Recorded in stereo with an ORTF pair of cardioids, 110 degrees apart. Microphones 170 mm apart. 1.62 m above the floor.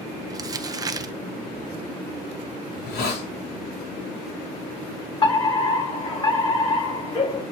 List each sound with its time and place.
0.3 s crumpling: 20° right, 0.9 m
2.7 s a hiss: 70° left, 3.5 m
5.2 s a fire alarm: 30° left, 5 m